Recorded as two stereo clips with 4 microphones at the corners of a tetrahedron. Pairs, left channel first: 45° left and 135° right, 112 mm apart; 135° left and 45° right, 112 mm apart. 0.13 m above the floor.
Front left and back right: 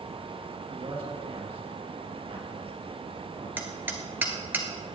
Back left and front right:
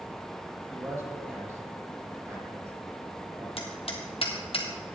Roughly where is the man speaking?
Right.